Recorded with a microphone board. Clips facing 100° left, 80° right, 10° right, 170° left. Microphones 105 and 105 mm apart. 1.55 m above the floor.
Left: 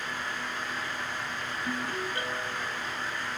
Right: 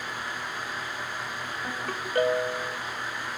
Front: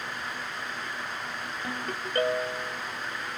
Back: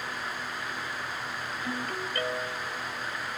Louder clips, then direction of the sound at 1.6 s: Left 2 dB, back 1 dB; 50° right.